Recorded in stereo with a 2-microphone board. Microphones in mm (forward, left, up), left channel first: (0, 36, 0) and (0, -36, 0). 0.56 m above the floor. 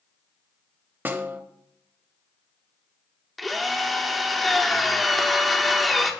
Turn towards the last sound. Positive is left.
turn(degrees=0)  # may be behind; listen again after turning